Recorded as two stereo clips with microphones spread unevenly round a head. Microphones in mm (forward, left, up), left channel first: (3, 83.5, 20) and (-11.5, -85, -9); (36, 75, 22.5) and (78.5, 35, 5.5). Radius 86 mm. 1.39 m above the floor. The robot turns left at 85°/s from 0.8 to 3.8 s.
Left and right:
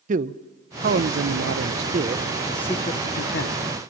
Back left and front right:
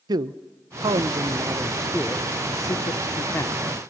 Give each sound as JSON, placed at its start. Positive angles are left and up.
{"t": 0.1, "sound": "a man speaking", "azimuth_deg": -45, "distance_m": 0.6}